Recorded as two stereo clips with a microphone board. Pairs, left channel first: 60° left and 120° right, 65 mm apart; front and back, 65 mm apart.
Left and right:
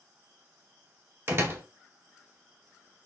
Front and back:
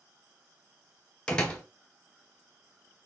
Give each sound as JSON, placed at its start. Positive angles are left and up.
{"t": 1.3, "sound": "a door slam", "azimuth_deg": -75, "distance_m": 0.9}